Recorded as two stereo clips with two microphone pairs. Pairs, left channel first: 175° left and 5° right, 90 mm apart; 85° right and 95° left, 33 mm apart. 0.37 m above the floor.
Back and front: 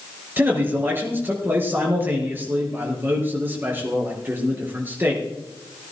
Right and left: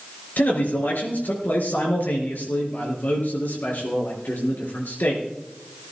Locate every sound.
0.4 s a man speaking: 70° right, 5 m